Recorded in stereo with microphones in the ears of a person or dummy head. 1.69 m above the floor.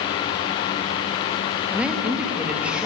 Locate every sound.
1.7 s a woman speaking: 5° right (ahead or behind), 2.5 m